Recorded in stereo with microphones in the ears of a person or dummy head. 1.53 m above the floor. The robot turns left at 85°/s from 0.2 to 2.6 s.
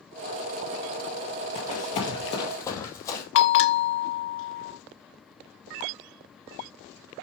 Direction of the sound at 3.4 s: 60° left (ahead or behind).